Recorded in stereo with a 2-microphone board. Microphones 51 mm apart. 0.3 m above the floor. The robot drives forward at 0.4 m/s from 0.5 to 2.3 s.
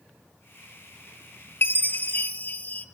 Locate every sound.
1.6 s a chime: 45° left (ahead or behind), 0.9 m; by 2.9 s 35° left (ahead or behind), 1.1 m